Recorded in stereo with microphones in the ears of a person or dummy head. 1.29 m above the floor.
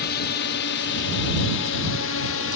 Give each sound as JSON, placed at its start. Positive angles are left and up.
{"t": 0.0, "sound": "a drone", "side_deg": 50}